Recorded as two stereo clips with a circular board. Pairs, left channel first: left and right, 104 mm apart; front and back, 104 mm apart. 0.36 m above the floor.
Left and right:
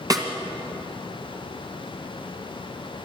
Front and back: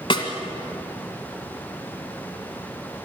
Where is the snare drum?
40° right, 2 m.